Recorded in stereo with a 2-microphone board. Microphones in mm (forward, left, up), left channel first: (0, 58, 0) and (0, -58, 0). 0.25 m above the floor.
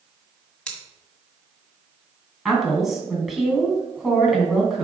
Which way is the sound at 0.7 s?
5° left (ahead or behind).